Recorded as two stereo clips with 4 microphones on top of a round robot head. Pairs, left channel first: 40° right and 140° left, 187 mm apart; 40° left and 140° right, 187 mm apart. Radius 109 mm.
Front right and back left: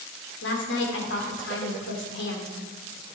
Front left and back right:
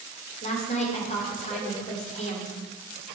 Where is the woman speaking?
15° right, 2.5 m.